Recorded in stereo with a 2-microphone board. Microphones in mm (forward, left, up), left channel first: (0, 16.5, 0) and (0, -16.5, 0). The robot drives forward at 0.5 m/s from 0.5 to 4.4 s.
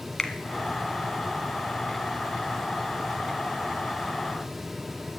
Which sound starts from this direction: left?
A finger snap, at 0.2 s.